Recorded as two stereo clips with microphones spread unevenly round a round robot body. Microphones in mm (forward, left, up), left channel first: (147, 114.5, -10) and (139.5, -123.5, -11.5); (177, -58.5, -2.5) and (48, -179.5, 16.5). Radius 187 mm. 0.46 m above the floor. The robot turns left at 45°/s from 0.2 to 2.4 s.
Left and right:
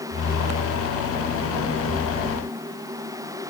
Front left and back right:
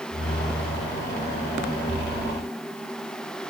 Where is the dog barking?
No dog barking in this recording.